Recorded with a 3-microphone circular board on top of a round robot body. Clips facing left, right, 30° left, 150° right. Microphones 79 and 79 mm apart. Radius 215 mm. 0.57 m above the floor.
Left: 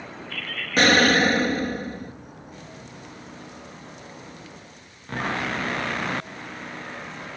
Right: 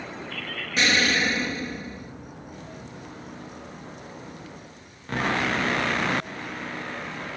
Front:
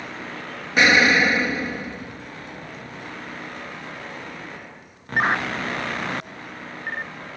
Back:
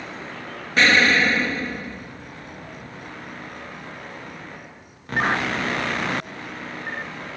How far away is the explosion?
About 1.2 m.